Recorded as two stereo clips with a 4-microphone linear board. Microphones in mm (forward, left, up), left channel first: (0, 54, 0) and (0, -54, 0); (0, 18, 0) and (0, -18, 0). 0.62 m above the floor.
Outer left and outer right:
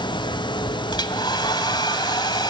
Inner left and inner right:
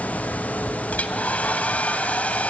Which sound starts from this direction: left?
A hair dryer, at 0.9 s.